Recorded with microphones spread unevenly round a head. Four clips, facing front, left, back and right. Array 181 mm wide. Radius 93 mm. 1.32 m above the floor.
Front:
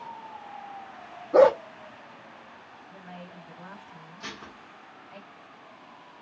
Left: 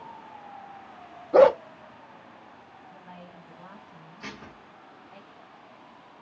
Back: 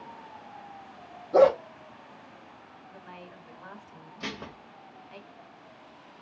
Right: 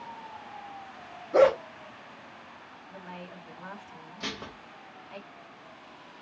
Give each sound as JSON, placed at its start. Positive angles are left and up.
{"t": 1.3, "sound": "a dog barking", "azimuth_deg": 100, "distance_m": 0.7}
{"t": 2.9, "sound": "a woman speaking", "azimuth_deg": -115, "distance_m": 2.0}
{"t": 4.2, "sound": "dishes clattering", "azimuth_deg": -150, "distance_m": 0.6}